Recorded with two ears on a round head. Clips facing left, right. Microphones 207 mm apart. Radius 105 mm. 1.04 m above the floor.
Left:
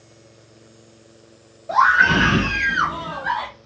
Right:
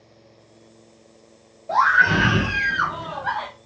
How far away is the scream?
About 1.1 m.